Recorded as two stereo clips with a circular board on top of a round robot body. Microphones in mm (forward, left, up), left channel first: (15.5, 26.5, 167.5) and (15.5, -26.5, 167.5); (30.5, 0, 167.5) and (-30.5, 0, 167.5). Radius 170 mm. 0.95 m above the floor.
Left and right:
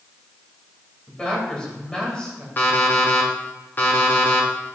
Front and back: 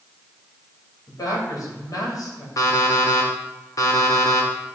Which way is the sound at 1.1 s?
20° left.